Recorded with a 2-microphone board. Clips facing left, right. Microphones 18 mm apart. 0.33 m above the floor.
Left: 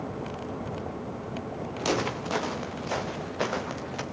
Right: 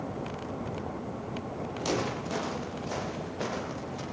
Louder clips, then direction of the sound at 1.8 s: Left 3 dB; 30° left (ahead or behind).